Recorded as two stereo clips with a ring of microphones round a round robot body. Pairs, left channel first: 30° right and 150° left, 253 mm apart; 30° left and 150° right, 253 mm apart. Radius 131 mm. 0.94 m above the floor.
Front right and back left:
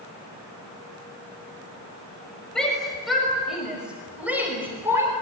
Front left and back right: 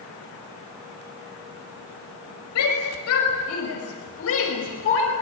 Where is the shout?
55° left, 6 m; by 5.1 s 70° left, 5.5 m.